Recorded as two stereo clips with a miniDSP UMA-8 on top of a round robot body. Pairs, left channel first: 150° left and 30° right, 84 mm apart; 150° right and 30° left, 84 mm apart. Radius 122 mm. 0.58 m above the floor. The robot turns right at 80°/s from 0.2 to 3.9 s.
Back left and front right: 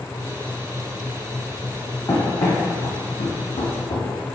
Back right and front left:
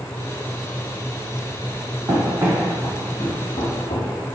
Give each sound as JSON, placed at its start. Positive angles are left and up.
{"t": 2.1, "sound": "running footsteps", "azimuth_deg": 85, "distance_m": 1.7}